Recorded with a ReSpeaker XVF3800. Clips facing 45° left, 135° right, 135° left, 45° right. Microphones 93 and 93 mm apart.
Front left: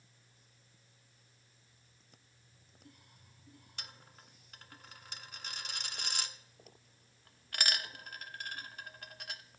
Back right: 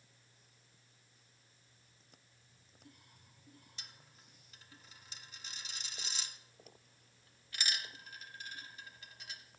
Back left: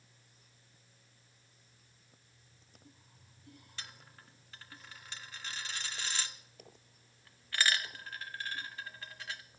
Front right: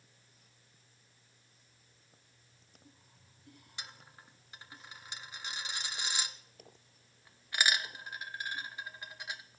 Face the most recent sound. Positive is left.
turn(degrees=25)